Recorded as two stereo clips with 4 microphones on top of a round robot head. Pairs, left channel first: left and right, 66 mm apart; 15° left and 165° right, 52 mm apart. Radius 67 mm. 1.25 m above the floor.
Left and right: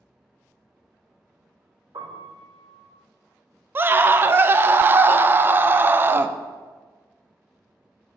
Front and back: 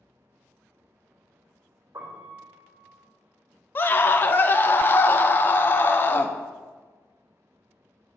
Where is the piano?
125° right, 3.5 m.